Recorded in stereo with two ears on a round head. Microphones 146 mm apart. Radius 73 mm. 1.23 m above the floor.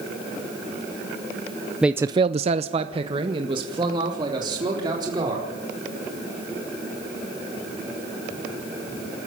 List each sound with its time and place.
1.8 s a man speaking: 5° right (ahead or behind), 0.7 m; by 5.5 s 25° right (ahead or behind), 4.5 m